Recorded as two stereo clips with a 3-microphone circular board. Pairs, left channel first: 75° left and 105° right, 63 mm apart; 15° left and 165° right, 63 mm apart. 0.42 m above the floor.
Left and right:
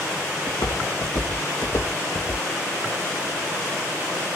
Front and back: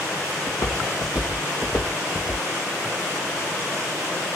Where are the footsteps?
50° left, 3.5 m; by 2.4 s 70° left, 2.5 m.